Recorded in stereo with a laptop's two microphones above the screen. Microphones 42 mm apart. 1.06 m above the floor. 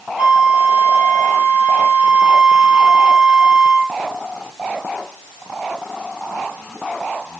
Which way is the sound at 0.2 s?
20° right (ahead or behind).